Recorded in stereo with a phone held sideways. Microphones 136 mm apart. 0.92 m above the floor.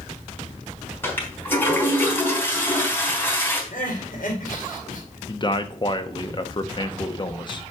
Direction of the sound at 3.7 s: 85° left.